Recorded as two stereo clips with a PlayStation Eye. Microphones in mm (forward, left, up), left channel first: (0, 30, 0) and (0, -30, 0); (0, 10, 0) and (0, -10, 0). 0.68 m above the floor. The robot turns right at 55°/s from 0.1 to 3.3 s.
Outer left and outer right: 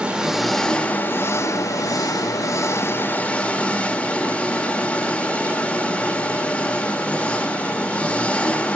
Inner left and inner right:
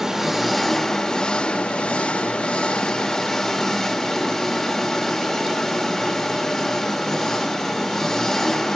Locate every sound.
0.0 s an engine running: 20° right, 1.7 m; by 8.8 s 160° left, 1.7 m